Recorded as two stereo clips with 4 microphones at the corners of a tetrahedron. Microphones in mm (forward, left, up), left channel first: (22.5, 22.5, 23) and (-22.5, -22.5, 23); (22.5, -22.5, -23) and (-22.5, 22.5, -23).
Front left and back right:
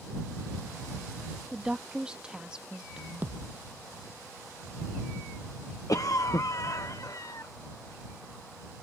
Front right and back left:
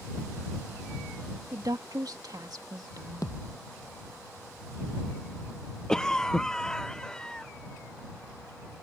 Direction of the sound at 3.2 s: 75° right.